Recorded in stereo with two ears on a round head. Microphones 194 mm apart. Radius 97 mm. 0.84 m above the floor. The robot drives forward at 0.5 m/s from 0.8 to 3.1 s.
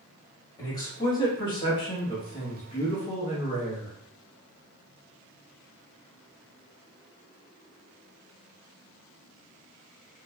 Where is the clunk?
I don't hear a clunk.